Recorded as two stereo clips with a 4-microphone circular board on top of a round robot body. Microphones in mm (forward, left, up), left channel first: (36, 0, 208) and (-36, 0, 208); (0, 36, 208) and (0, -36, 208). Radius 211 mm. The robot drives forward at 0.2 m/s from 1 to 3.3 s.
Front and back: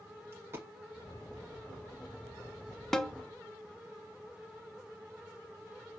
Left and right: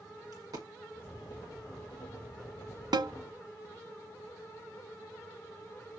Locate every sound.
0.3 s a dropped coin: 125° right, 1.0 m
2.9 s a snare drum: 85° right, 0.8 m